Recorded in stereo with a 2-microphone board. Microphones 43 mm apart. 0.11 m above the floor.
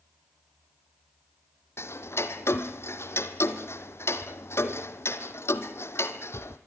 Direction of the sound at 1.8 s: 75° left (ahead or behind).